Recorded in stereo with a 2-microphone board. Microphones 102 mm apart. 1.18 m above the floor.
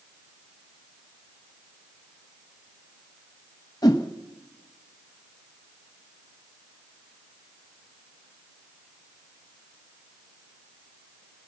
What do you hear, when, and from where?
3.8 s a whoosh: 35° left (ahead or behind), 1.1 m